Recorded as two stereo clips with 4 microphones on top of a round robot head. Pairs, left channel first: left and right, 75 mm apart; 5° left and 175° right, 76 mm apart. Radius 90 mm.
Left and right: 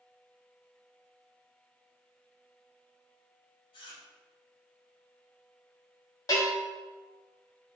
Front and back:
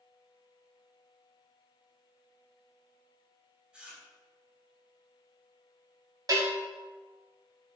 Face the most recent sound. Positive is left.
turn(degrees=145)